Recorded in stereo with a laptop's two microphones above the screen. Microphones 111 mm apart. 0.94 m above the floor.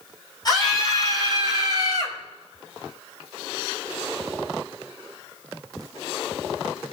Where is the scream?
35° left (ahead or behind), 5 m; by 2.2 s 40° left (ahead or behind), 4 m.